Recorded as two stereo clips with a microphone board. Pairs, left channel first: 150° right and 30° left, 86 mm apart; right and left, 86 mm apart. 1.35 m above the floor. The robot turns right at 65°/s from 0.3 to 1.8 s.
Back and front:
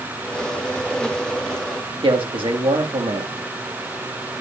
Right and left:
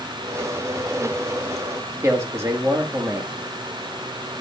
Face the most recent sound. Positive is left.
turn(degrees=30)